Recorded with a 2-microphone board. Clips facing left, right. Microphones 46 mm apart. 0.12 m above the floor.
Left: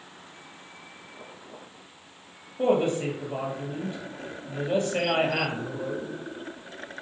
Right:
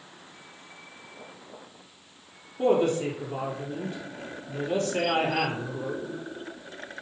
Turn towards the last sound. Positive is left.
turn(degrees=20)  # may be behind; listen again after turning